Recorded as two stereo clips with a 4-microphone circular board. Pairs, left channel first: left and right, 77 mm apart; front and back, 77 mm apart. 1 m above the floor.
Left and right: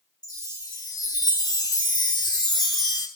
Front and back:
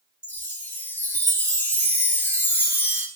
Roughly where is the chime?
Ahead left.